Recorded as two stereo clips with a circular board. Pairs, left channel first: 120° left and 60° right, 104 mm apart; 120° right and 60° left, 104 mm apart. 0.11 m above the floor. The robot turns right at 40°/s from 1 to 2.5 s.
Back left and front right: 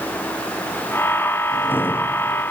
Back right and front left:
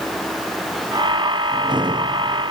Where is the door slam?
I don't hear a door slam.